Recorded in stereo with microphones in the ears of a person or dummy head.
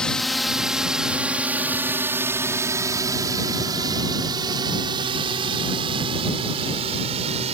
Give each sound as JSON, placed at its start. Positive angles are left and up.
{"t": 0.0, "sound": "a drone", "side_deg": 5}